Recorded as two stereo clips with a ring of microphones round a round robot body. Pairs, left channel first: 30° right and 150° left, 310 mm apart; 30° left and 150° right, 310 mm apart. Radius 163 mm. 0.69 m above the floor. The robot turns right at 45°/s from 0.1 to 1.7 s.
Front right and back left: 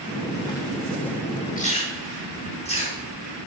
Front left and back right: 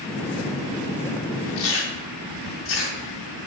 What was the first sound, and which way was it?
Chewing, 35° left.